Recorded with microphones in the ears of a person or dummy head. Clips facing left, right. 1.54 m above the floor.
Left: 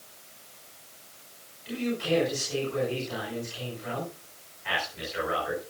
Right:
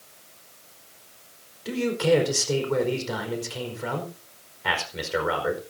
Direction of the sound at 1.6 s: 75° right (ahead or behind).